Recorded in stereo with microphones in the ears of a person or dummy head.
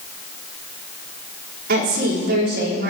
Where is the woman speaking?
60° right (ahead or behind), 3.5 m.